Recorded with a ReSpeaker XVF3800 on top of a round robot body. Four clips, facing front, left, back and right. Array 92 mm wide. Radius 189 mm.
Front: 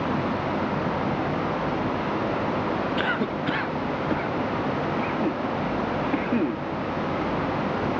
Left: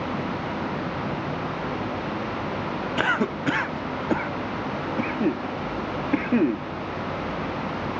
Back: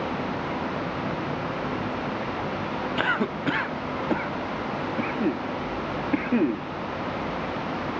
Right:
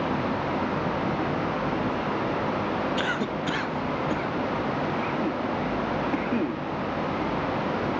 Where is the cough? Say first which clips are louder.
Left 3 dB, even; 110° left.